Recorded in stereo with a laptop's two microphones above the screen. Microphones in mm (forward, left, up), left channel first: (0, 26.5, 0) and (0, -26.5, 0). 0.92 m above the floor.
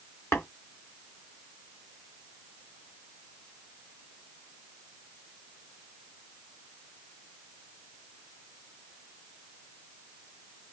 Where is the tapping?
45° left (ahead or behind), 3 m.